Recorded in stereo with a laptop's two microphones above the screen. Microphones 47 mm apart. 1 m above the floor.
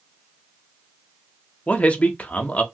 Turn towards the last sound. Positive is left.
turn(degrees=30)  # may be behind; listen again after turning